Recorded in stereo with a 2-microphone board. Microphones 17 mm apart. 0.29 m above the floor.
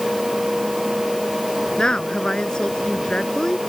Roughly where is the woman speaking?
Left.